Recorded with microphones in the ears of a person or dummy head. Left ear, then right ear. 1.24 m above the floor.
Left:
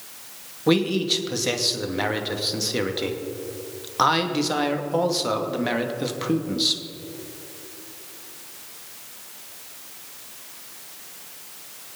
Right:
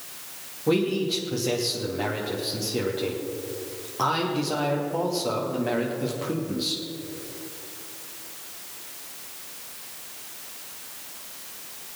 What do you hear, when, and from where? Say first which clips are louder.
0.7 s a man speaking: left 3 dB; 55° left (ahead or behind), 2.5 m